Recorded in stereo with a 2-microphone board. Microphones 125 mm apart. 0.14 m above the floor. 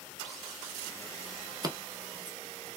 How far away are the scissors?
About 0.7 m.